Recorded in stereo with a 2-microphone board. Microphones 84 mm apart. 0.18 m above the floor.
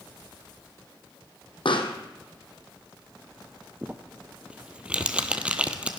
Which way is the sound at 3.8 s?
15° right (ahead or behind).